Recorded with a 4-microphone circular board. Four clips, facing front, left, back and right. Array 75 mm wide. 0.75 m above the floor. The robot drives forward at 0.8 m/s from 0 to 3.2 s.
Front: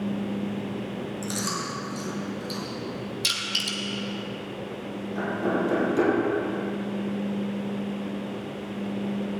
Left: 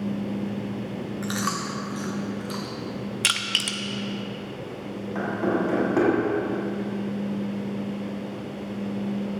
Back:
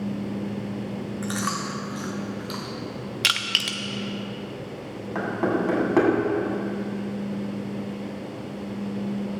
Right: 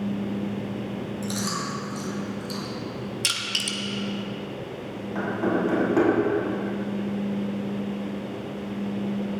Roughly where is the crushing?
Behind left.